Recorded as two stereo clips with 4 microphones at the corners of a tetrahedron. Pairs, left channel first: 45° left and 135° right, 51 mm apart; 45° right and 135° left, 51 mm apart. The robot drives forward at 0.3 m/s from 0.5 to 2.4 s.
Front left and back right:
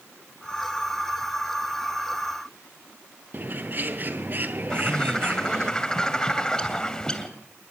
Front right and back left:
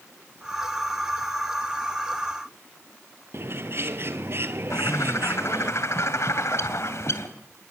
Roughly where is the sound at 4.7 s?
Ahead right.